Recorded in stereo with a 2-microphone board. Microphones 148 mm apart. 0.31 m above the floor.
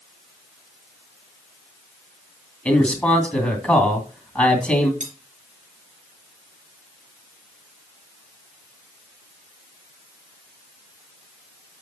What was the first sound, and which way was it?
A man speaking, 10° left (ahead or behind).